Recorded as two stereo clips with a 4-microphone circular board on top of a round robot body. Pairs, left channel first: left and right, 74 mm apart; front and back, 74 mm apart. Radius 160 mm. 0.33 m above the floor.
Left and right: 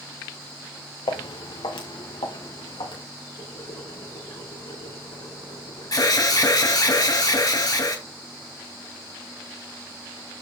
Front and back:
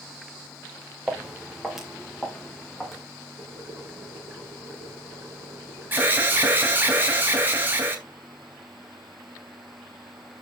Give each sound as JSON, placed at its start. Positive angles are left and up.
{"t": 1.1, "sound": "footsteps", "azimuth_deg": 95, "distance_m": 2.0}
{"t": 3.4, "sound": "boiling", "azimuth_deg": 110, "distance_m": 5.0}
{"t": 5.9, "sound": "an alarm", "azimuth_deg": 120, "distance_m": 3.0}